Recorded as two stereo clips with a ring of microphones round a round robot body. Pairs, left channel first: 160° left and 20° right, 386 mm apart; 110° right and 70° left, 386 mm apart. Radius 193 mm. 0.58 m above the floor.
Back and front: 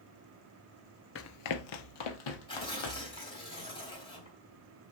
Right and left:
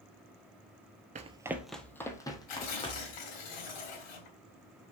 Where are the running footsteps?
125° left, 0.6 m; by 3.2 s 170° left, 2 m.